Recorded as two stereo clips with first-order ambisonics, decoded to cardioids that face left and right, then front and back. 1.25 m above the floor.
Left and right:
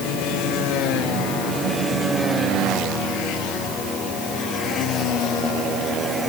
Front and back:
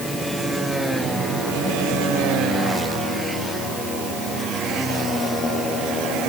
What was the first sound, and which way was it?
Only background noise.